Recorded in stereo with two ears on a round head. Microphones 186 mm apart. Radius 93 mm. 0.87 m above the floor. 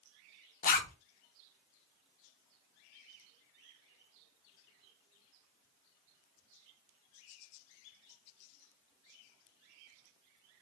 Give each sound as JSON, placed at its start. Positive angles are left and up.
{"t": 0.6, "sound": "a zipper", "side_deg": 40, "distance_m": 0.5}